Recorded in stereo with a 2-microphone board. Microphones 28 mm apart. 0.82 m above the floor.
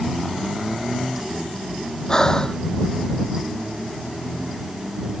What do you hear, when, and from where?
2.1 s breathing: 20° left (ahead or behind)